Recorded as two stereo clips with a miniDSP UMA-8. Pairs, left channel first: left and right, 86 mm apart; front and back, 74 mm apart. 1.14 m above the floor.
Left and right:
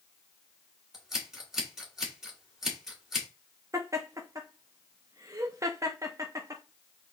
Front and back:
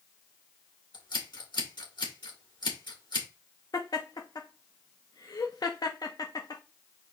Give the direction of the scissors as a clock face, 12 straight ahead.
12 o'clock.